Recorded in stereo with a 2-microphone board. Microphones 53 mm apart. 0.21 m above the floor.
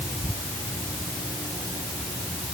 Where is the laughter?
I don't hear laughter.